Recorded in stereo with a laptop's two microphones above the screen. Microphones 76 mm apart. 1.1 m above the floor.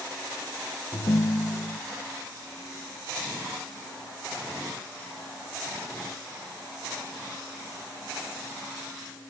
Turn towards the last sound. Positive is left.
turn(degrees=65)  # may be behind; listen again after turning